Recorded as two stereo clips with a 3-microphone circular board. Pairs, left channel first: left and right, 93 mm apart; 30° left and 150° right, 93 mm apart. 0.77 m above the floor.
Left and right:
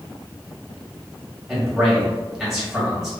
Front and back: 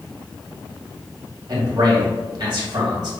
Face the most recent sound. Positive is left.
turn(degrees=-175)